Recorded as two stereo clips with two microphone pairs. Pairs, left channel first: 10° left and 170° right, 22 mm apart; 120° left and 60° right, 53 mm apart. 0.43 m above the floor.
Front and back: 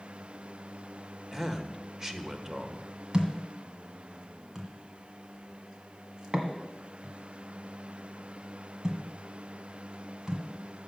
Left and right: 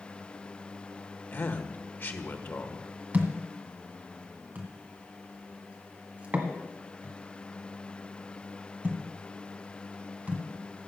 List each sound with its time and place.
1.3 s a man speaking: 130° left, 1.3 m
3.1 s a thud: 115° right, 1.6 m